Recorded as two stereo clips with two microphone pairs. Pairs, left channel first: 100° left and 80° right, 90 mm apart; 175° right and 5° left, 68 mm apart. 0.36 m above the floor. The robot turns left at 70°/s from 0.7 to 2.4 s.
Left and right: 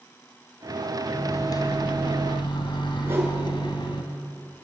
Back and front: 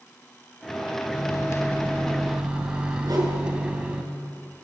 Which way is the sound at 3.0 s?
15° right.